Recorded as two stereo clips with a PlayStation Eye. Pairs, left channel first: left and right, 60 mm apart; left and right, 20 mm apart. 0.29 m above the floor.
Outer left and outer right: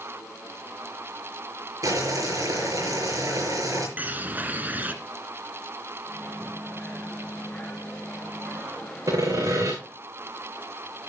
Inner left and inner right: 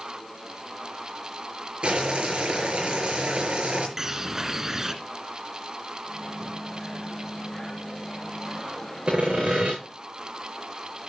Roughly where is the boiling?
Right.